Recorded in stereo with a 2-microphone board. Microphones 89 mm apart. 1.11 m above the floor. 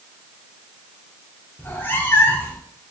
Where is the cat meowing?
20° left (ahead or behind), 0.7 m.